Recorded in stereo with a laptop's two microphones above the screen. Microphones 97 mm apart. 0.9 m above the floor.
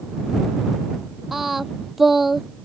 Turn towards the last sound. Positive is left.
turn(degrees=-5)  # may be behind; listen again after turning